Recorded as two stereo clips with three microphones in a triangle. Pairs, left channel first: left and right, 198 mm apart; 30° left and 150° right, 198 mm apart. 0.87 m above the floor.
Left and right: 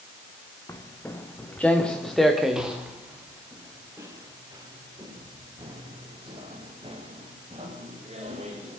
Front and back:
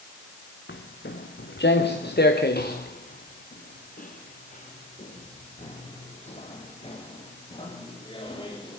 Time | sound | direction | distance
0.7 | footsteps | 15° left | 3 m